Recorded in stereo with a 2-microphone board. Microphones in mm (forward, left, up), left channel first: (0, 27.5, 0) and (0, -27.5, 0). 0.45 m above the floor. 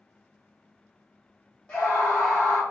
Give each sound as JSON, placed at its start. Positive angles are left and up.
{"t": 1.7, "sound": "a scream", "side_deg": 20, "distance_m": 1.1}